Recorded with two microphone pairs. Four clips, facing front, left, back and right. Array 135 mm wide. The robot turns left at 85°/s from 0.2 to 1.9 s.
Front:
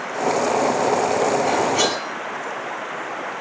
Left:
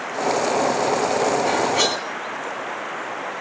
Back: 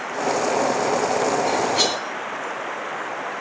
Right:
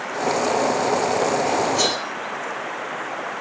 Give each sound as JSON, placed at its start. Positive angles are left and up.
{"t": 1.5, "sound": "cutlery clinking", "azimuth_deg": 65, "distance_m": 1.9}